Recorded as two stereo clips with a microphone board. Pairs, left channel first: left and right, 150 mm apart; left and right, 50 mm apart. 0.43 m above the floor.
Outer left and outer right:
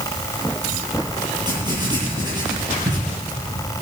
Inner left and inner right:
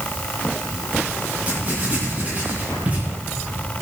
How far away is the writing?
About 8.5 m.